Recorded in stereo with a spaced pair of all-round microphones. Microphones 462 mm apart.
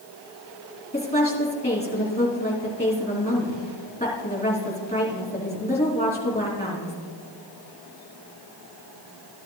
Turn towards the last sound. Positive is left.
turn(degrees=15)  # may be behind; listen again after turning